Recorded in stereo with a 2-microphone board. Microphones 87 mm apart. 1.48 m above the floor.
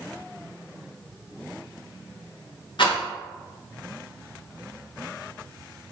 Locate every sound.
2.8 s a rattle: 70° left (ahead or behind), 2.5 m